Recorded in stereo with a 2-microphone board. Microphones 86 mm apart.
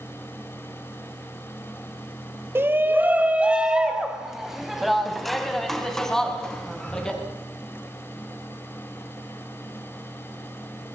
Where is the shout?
25° right (ahead or behind), 2 m; by 7.2 s 10° left (ahead or behind), 5.5 m.